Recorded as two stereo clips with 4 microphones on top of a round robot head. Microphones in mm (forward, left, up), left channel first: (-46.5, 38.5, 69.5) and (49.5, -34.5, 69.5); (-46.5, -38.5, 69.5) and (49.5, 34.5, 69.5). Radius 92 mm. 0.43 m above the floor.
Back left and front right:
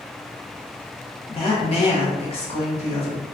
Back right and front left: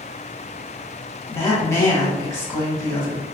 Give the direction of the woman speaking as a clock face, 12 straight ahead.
7 o'clock.